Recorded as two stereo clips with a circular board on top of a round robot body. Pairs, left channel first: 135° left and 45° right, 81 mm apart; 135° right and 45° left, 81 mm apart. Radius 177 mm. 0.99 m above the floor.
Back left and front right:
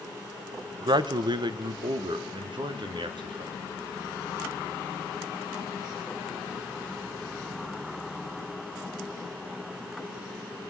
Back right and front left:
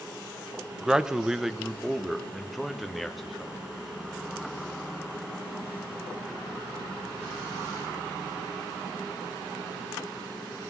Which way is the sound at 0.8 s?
35° right.